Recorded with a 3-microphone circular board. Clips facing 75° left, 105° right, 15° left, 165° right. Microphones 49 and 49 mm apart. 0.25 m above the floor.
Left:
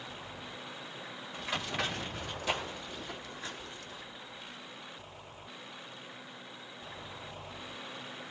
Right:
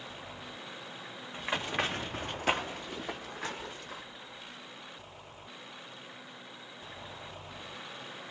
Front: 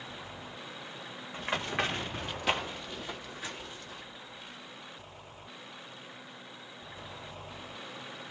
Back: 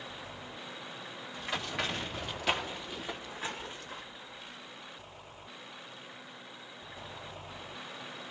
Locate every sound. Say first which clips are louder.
1.3 s running footsteps: right 3 dB, front 4 dB; 45° right, 1.3 m; by 4.0 s 115° right, 1.2 m